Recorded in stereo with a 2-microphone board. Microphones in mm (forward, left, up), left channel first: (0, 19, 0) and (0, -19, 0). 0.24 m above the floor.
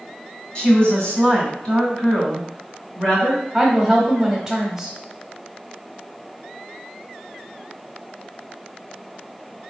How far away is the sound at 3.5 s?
About 1.0 m.